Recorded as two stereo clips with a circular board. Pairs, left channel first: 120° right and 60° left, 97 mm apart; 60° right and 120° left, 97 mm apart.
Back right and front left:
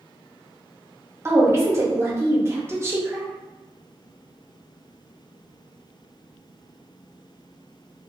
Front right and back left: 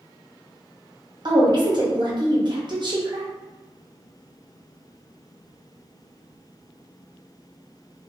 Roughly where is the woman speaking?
Behind left.